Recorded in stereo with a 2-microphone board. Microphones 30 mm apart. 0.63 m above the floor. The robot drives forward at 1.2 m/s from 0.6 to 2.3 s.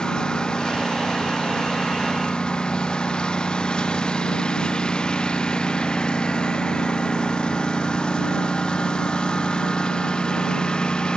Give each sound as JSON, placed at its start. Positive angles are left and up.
{"t": 0.0, "sound": "a lawn mower", "side_deg": 30}